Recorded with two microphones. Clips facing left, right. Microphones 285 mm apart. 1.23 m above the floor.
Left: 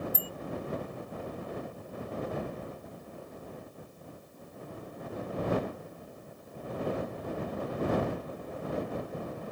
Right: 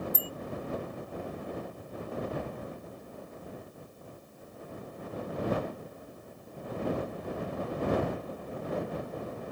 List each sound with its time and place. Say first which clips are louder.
0.1 s a bicycle bell: right 1 dB; 75° right (ahead or behind)